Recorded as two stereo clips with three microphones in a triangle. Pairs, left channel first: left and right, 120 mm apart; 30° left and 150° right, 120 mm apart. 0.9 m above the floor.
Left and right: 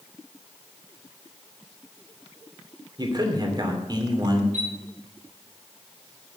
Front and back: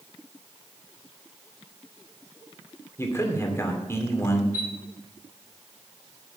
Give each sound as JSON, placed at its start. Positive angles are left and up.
{"t": 3.0, "sound": "a man speaking", "azimuth_deg": -40, "distance_m": 2.5}
{"t": 4.5, "sound": "a chime", "azimuth_deg": -80, "distance_m": 5.0}